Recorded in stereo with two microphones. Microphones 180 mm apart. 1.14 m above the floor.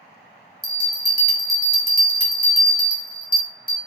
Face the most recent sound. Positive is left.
turn(degrees=55)  # may be behind; listen again after turning